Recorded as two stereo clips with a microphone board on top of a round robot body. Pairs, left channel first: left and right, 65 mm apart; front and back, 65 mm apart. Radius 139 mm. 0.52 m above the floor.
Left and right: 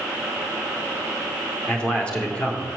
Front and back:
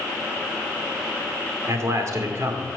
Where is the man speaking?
160° left, 2 m.